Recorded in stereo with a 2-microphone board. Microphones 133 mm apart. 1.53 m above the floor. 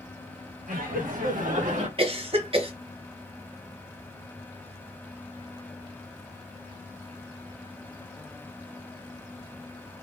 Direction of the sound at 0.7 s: 75° right (ahead or behind).